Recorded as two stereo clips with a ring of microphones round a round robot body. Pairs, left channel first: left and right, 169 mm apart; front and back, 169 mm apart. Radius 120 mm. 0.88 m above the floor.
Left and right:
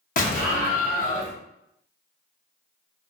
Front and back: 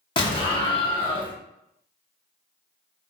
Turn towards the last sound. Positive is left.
turn(degrees=60)